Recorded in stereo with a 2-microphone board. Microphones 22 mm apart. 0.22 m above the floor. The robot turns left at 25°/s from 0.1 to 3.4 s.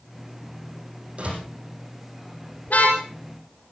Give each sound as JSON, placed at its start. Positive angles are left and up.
{"t": 1.2, "sound": "a door slam", "side_deg": -50, "distance_m": 6.5}
{"t": 2.7, "sound": "a car horn", "side_deg": 75, "distance_m": 4.5}